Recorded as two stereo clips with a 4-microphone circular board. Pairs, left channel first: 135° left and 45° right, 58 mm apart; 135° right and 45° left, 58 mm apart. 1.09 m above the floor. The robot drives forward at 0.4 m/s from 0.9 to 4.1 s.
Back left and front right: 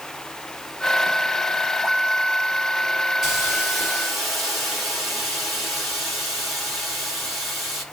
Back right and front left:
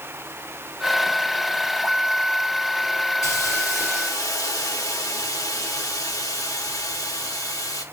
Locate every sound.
3.2 s a hiss: 130° right, 4.5 m